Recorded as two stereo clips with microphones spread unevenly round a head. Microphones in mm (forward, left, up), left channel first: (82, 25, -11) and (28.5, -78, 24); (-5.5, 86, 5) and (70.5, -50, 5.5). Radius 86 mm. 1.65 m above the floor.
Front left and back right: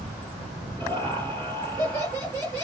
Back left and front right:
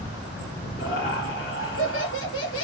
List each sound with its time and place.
0.8 s laughter: 160° left, 3 m